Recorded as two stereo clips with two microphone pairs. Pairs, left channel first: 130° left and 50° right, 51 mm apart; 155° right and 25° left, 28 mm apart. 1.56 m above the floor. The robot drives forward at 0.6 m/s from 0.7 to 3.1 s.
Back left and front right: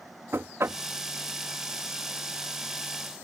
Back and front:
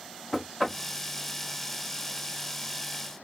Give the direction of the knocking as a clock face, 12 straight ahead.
2 o'clock.